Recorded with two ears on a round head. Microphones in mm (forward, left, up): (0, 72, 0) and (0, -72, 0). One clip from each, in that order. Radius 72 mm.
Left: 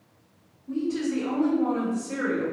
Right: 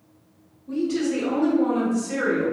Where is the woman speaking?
30° right (ahead or behind), 1.2 m; by 2.5 s 5° right (ahead or behind), 1.6 m.